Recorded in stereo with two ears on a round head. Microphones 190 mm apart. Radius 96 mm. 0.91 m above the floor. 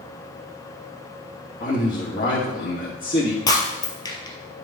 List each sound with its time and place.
1.6 s a man speaking: 35° left (ahead or behind), 1.9 m
3.5 s breaking glass: 20° left (ahead or behind), 1.9 m